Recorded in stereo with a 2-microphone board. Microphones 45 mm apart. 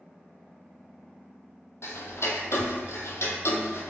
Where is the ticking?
85° left, 0.7 m.